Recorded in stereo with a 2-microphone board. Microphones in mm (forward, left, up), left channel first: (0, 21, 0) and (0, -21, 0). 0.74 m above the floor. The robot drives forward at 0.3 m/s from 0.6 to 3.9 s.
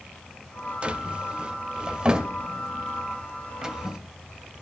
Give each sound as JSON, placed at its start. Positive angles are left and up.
{"t": 0.8, "sound": "a drawer", "side_deg": -25, "distance_m": 1.1}